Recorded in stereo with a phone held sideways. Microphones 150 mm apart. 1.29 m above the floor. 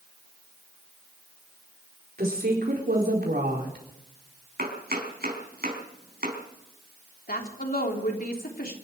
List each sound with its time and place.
2.2 s a woman speaking: 85° right, 4.5 m
4.6 s chopping: 80° right, 4.5 m
7.3 s a woman speaking: 75° left (ahead or behind), 3 m